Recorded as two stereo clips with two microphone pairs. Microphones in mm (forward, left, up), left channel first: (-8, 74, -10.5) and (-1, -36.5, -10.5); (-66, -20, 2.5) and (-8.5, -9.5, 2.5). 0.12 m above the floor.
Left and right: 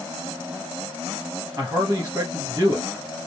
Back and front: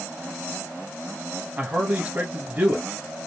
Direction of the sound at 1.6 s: 40° right.